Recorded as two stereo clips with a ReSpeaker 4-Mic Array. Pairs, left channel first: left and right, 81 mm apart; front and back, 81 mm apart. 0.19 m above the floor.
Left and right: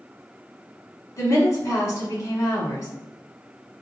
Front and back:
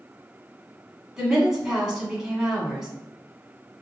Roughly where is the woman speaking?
Left.